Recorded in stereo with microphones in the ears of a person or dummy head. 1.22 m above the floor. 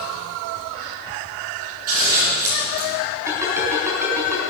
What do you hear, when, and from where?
1.9 s scissors: 50° right (ahead or behind), 6 m
3.3 s a ringtone: 15° right (ahead or behind), 4.5 m